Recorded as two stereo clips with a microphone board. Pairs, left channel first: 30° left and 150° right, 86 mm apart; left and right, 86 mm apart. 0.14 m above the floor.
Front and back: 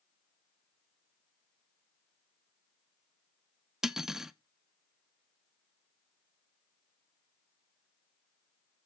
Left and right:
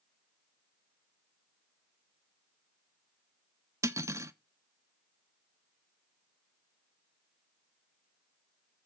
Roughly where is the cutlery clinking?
Right.